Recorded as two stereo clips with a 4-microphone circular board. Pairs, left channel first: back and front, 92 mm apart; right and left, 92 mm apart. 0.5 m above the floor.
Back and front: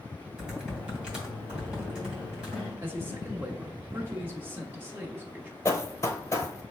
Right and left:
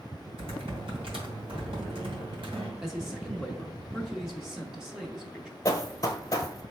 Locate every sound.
0.4 s typing on a keyboard: 80° left, 2 m
2.8 s a man speaking: 10° left, 0.8 m
5.7 s running footsteps: 130° right, 0.7 m